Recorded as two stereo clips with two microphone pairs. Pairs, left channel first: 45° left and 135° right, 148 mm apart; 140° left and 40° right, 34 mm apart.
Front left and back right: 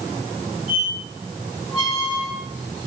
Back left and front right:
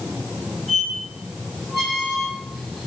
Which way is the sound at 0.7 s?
140° right.